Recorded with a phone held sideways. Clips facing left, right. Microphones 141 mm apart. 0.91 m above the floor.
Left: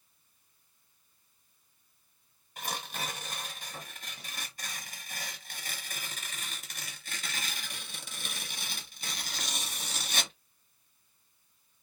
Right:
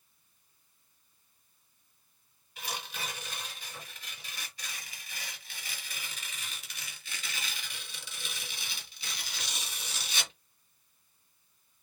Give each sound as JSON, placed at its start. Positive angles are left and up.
{"t": 2.6, "sound": "tearing paper", "side_deg": 45, "distance_m": 1.1}